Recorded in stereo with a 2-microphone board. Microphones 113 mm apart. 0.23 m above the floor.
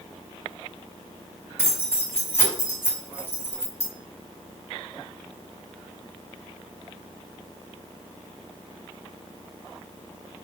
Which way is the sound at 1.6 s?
25° left (ahead or behind).